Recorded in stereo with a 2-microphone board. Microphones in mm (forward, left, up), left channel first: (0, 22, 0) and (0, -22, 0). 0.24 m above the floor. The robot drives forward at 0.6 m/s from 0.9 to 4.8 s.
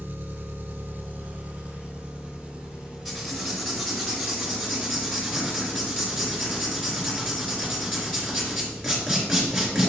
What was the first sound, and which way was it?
An engine running, 50° right (ahead or behind).